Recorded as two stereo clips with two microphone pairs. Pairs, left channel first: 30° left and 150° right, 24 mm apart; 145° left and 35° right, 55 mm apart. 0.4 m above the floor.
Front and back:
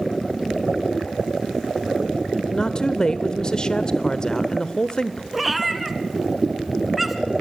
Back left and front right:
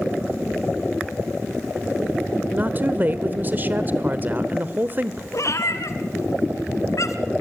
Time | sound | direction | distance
2.5 | a woman speaking | 5° right | 1.0 m
5.3 | a cat meowing | 125° left | 2 m